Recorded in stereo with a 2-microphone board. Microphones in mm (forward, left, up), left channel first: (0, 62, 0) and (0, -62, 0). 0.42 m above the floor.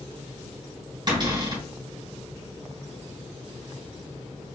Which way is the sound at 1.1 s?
40° right (ahead or behind).